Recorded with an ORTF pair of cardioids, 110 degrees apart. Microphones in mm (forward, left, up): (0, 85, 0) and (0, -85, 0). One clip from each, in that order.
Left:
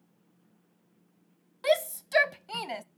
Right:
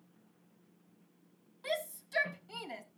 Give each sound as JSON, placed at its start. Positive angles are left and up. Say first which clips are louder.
{"t": 1.6, "sound": "a shout", "louder": "left 11 dB", "azimuth_deg": 70, "distance_m": 0.9}